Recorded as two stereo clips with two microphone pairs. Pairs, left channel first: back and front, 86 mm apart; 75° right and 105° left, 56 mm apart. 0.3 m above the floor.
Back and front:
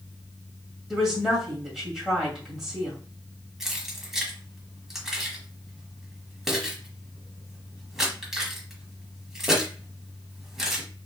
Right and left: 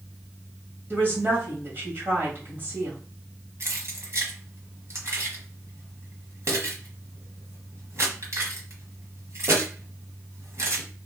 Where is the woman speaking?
80° left, 1.9 m.